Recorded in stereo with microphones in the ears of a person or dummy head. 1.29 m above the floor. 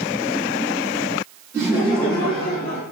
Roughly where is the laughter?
Centre.